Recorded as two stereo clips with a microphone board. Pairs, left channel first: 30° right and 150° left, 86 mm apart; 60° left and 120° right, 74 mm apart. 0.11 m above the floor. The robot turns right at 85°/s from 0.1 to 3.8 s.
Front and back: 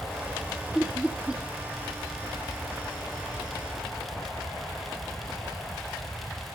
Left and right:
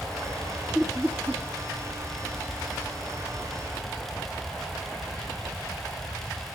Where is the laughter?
Straight behind, 1.4 m; by 1.4 s 120° right, 1.4 m.